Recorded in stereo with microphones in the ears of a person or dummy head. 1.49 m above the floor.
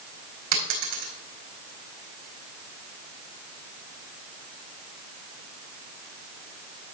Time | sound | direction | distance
0.5 | a dropped coin | 50° right (ahead or behind) | 3 m